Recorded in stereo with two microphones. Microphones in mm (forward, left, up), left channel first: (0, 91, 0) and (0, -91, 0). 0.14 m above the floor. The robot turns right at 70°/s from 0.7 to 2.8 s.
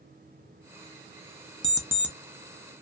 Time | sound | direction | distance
1.6 | an alarm clock | 35° right | 0.5 m